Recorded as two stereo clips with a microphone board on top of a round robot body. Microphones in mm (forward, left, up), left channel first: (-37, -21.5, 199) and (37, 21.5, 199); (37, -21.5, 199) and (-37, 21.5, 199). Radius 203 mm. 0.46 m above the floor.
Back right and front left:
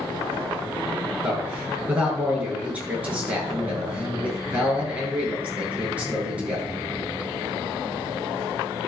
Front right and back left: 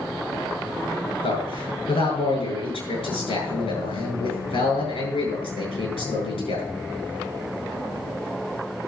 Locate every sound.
1.2 s a man speaking: 45° right, 8.5 m